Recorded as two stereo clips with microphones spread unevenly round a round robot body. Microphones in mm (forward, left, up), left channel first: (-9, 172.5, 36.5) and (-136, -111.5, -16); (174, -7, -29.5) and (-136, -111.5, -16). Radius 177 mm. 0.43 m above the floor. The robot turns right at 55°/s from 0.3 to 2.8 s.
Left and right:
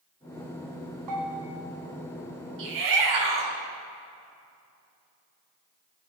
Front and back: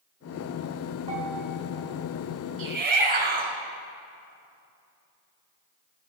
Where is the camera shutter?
I don't hear a camera shutter.